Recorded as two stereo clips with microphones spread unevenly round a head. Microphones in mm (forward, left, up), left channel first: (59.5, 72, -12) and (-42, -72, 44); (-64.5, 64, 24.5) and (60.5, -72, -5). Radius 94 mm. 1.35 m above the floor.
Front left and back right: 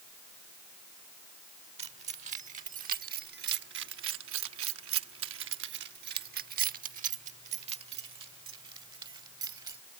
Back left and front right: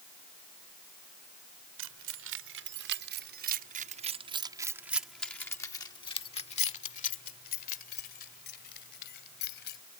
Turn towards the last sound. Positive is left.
turn(degrees=165)